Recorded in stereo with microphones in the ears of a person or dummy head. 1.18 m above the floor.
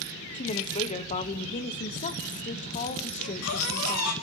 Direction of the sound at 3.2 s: 85° left.